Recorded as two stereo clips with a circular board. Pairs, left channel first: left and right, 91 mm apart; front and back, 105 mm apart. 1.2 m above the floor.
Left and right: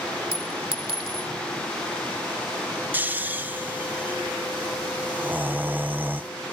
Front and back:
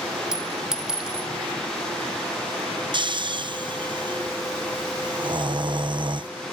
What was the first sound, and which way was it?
A clink, 95° right.